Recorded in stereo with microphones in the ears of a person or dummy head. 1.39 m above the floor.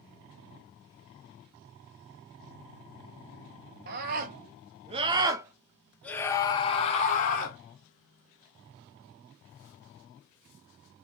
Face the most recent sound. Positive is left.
turn(degrees=50)  # may be behind; listen again after turning